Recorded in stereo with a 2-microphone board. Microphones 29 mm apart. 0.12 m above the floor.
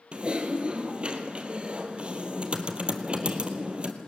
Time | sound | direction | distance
0.1 | typing on a keyboard | 40° right (ahead or behind) | 1.8 m